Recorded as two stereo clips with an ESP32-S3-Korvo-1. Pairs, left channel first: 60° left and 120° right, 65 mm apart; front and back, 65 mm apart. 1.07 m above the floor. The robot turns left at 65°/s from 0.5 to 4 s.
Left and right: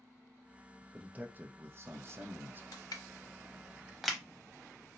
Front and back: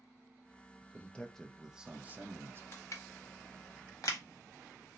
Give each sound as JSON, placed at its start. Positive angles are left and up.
{"t": 0.9, "sound": "a man speaking", "azimuth_deg": -55, "distance_m": 0.5}
{"t": 2.7, "sound": "crushing", "azimuth_deg": 55, "distance_m": 0.7}